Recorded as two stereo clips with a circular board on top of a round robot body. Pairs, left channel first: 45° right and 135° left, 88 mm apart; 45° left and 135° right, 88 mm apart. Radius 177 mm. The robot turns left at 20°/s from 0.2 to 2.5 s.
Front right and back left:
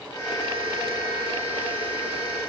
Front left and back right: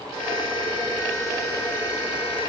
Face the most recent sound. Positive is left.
No sound to turn to.